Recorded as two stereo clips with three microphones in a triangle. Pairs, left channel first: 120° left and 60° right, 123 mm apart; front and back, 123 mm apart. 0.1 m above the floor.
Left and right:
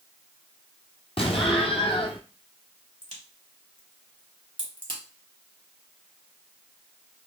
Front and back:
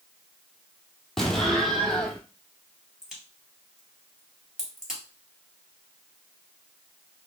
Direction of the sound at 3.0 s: 95° right.